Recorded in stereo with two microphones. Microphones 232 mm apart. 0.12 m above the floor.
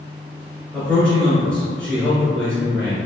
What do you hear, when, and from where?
0.7 s a man speaking: 5° left (ahead or behind), 1.3 m